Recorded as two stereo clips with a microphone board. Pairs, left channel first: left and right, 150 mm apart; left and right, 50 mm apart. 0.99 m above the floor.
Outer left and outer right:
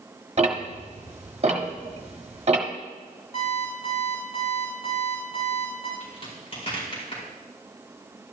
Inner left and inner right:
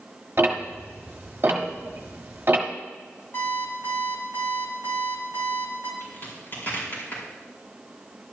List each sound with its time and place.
0.4 s ticking: 45° right (ahead or behind), 1.2 m
3.3 s an alarm clock: 45° left (ahead or behind), 4 m
6.0 s a crack: 40° left (ahead or behind), 4.5 m